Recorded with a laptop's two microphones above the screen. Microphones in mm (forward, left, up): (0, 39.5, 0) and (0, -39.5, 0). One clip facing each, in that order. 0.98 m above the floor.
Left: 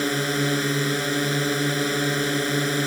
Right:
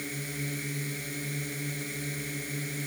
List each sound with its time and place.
0.0 s a drone: 80° left